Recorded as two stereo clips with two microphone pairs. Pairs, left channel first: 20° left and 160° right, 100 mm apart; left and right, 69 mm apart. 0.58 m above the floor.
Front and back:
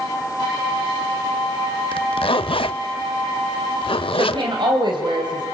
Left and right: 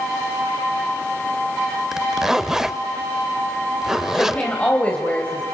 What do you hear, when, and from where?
1.9 s a zipper: 5° right, 0.6 m
4.2 s a woman speaking: 160° left, 3 m